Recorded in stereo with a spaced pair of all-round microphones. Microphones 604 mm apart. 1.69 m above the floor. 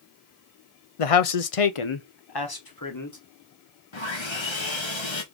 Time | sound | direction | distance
1.0 | a man speaking | 60° left (ahead or behind) | 0.8 m
3.9 | sawing | 50° left (ahead or behind) | 1.4 m